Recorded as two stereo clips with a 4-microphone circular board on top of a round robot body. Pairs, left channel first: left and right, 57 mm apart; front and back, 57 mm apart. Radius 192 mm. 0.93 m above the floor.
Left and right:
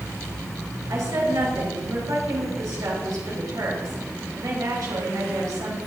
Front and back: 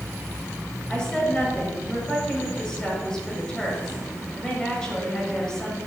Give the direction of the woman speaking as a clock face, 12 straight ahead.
3 o'clock.